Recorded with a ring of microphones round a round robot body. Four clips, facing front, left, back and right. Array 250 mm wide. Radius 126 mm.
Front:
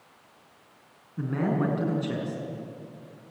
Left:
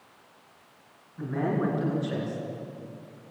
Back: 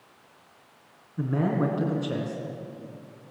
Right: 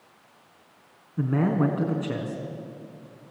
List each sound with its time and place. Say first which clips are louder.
1.2 s a man speaking: right 4 dB, back 1 dB; 80° right, 5 m